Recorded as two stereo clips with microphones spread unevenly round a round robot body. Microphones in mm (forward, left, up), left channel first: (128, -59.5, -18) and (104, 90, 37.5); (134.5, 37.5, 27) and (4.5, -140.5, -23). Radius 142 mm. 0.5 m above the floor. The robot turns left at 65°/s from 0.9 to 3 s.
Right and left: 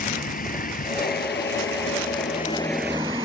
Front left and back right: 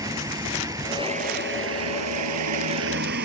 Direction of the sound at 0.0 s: 50° right.